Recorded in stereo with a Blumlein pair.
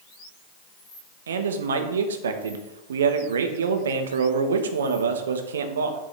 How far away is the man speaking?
About 0.5 m.